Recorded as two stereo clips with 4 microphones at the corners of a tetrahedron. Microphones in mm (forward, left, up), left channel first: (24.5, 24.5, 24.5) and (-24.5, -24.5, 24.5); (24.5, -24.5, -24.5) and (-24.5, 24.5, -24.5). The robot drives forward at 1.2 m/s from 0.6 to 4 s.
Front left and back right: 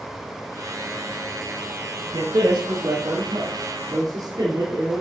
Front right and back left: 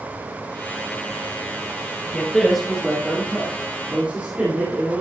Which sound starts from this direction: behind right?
A man speaking, at 2.1 s.